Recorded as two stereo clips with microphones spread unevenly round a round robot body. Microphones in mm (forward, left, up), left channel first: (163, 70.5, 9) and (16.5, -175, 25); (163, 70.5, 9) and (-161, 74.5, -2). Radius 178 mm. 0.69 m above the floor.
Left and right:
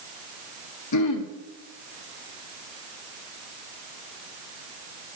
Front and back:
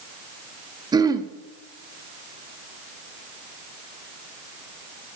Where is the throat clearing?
100° left, 0.6 m.